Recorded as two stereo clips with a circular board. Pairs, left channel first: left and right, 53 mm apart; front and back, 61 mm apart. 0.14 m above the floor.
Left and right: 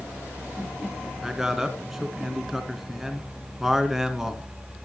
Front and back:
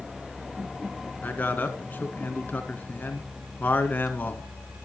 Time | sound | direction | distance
1.2 | a man speaking | 10° right | 1.6 m